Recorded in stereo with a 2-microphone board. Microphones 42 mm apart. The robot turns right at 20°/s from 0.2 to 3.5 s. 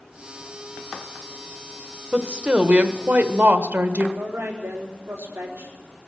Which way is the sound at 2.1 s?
20° right (ahead or behind).